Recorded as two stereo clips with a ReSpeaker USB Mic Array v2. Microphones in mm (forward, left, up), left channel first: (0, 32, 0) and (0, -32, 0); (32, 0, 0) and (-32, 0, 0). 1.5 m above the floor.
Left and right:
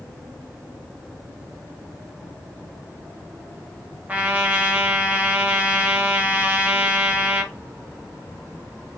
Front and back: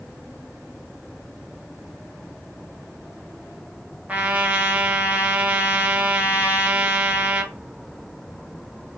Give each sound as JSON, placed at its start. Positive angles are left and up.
{"t": 4.1, "sound": "a trumpet", "azimuth_deg": -135, "distance_m": 0.5}